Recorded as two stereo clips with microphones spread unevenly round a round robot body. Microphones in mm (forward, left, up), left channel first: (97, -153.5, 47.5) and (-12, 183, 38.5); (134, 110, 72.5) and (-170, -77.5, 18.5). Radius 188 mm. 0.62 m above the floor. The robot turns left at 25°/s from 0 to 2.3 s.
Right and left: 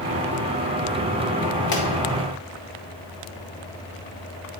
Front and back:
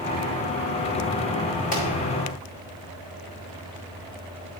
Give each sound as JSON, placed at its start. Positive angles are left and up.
{"t": 1.7, "sound": "a pop", "azimuth_deg": -40, "distance_m": 2.5}